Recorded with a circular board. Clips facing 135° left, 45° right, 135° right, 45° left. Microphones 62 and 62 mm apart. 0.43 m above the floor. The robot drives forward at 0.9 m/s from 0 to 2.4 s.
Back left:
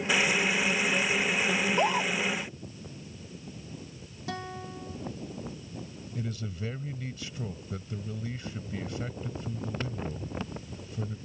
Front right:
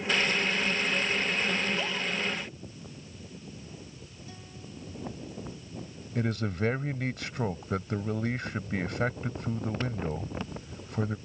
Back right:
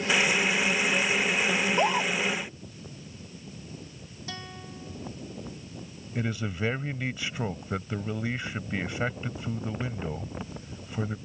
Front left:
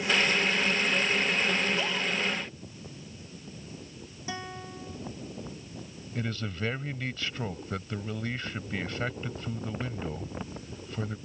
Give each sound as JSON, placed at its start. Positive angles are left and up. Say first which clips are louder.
{"t": 1.6, "sound": "a scream", "louder": "back left 5 dB, back right 4 dB", "azimuth_deg": 175}
{"t": 4.3, "sound": "a guitar", "louder": "back left 12 dB, front left 4 dB", "azimuth_deg": 120}
{"t": 6.2, "sound": "a man speaking", "louder": "front right 7 dB, back right 3 dB", "azimuth_deg": -60}